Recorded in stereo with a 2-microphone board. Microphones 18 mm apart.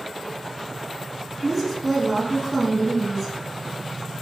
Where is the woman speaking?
5° left (ahead or behind), 1.1 m.